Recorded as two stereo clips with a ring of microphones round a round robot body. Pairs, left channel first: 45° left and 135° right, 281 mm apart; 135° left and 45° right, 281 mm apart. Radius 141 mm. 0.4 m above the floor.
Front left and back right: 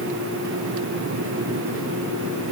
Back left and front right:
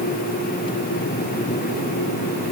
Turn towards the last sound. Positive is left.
No sound to turn to.